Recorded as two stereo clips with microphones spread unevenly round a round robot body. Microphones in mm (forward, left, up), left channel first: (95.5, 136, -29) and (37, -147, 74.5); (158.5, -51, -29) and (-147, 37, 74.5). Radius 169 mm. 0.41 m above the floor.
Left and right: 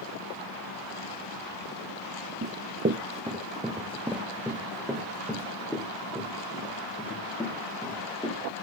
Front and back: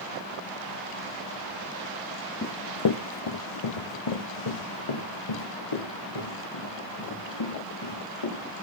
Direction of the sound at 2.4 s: 85° right.